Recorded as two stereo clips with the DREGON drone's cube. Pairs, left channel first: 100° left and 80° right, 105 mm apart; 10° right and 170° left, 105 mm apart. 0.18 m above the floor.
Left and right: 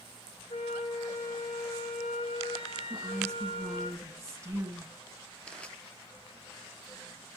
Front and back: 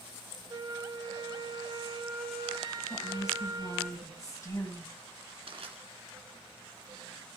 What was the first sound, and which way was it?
A flute, 120° left.